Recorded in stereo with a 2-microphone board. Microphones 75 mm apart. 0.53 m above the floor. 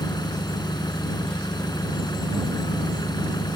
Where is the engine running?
70° left (ahead or behind).